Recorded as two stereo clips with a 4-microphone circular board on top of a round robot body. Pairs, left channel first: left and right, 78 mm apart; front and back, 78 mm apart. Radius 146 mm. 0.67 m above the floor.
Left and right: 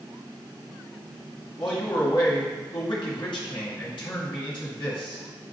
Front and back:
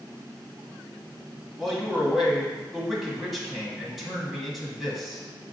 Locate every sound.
1.6 s a man speaking: 95° left, 1.6 m